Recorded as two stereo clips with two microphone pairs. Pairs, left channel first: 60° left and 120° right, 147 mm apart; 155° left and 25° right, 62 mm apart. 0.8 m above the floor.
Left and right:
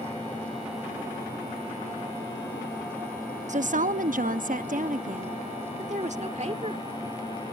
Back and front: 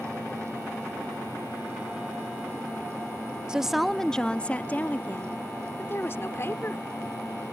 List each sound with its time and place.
3.5 s a woman speaking: 100° right; by 6.9 s 160° right